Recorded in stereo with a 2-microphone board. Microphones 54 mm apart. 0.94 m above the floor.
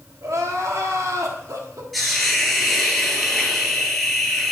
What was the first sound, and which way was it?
Crying, 75° right (ahead or behind).